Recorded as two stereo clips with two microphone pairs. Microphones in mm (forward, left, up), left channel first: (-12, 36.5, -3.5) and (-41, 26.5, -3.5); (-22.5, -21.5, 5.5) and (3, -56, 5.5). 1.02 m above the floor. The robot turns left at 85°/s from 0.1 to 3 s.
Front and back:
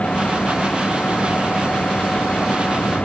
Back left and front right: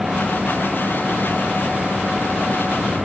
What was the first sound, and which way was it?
Only background noise.